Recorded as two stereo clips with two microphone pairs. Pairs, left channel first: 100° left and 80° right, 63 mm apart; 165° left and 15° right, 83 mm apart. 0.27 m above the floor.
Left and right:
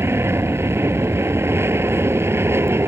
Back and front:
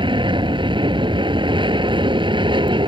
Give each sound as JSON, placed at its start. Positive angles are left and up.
{"t": 0.0, "sound": "an aircraft", "azimuth_deg": -30}